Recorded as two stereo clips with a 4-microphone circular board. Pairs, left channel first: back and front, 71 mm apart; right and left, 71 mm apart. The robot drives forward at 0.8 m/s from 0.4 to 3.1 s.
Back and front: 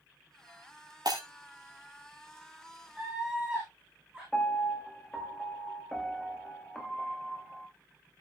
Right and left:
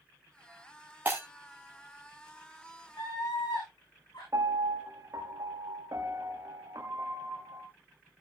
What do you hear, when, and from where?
1.1 s breaking glass: 25° left, 3.5 m
3.0 s a scream: 85° right, 7.5 m
4.3 s a piano: 100° left, 1.4 m